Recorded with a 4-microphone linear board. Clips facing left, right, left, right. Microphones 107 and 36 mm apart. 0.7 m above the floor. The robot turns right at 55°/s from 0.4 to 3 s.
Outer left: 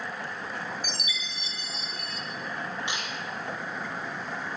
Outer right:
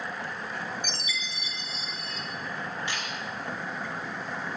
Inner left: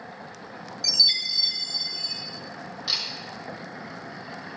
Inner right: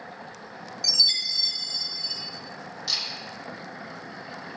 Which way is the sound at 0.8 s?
5° left.